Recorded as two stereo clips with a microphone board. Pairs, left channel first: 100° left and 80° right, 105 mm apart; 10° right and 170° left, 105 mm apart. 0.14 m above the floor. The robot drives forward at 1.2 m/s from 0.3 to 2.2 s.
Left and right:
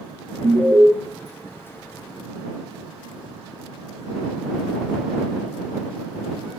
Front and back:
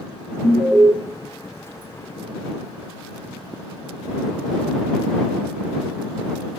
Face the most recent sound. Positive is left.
turn(degrees=-170)